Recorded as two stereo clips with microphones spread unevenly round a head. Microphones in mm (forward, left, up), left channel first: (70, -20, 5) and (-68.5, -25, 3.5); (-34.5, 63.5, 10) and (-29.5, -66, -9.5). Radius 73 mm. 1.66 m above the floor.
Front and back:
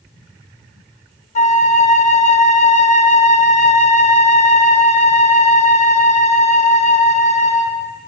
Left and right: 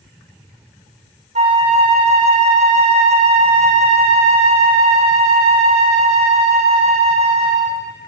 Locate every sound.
1.4 s a flute: 35° right, 1.4 m